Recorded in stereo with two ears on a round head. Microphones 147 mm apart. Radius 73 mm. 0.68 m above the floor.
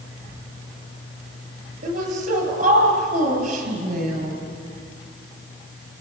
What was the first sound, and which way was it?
A woman speaking, 55° right (ahead or behind).